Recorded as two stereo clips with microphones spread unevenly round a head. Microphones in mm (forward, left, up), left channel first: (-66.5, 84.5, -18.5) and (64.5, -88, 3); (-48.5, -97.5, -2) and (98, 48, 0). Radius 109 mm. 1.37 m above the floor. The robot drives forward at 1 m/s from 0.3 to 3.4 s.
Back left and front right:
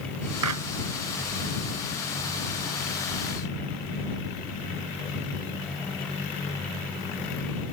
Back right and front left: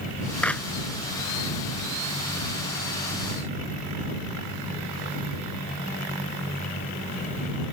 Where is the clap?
50° right.